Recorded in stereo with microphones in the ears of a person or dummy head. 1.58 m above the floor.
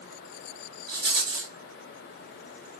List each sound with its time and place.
0.9 s a rattle: 45° right (ahead or behind), 1.5 m